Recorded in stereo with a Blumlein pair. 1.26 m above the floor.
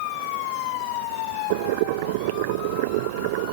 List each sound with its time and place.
1.5 s boiling: 50° right